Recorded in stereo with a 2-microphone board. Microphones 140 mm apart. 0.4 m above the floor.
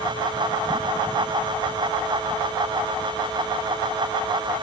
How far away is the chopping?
No chopping in this recording.